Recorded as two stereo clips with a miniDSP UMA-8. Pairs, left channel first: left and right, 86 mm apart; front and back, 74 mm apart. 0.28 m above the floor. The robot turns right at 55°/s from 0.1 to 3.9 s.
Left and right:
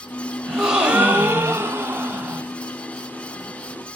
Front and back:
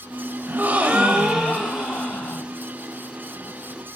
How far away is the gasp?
About 1.3 m.